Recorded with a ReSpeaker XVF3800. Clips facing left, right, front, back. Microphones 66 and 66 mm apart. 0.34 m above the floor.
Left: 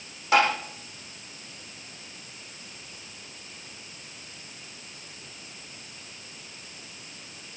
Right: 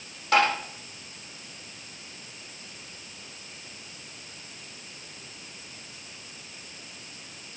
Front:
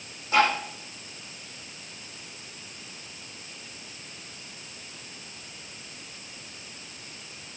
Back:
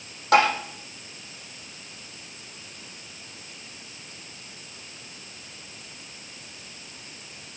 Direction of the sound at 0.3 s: 170° left.